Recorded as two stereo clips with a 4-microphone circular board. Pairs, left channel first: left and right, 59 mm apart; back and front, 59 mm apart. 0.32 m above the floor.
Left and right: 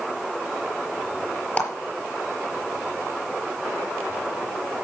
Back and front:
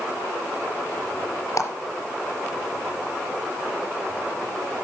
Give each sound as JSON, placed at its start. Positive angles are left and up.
{"t": 1.6, "sound": "a clap", "azimuth_deg": 155, "distance_m": 4.5}